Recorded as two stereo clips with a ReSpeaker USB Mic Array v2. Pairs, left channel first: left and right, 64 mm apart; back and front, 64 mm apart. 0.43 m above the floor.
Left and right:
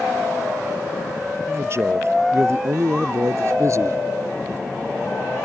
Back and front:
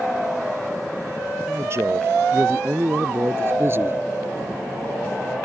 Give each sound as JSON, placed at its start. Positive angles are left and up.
{"t": 1.5, "sound": "a man speaking", "azimuth_deg": -45}